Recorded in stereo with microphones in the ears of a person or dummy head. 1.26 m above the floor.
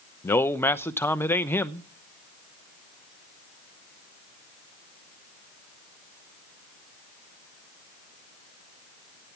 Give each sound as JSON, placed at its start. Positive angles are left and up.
{"t": 0.2, "sound": "a man speaking", "side_deg": 15, "distance_m": 0.8}